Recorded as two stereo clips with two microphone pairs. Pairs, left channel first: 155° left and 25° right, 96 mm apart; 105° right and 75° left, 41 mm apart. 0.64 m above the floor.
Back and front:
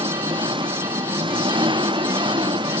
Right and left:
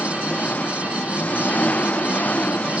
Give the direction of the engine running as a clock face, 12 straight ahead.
2 o'clock.